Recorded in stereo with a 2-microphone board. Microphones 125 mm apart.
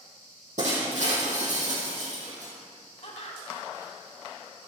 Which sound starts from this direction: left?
Laughter, at 3.0 s.